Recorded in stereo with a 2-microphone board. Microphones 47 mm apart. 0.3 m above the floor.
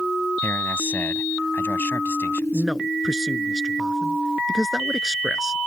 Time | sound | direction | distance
0.4 | a man speaking | 55° left (ahead or behind) | ?
2.5 | a man speaking | 10° right (ahead or behind) | ?